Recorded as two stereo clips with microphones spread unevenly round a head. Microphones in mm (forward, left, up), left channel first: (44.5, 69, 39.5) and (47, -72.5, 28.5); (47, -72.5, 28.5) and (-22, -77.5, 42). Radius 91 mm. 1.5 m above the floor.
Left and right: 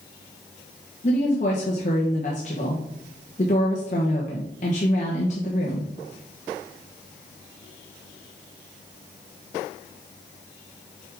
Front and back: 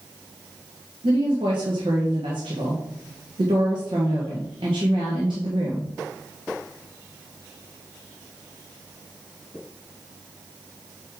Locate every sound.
1.0 s a woman speaking: 140° left, 1.3 m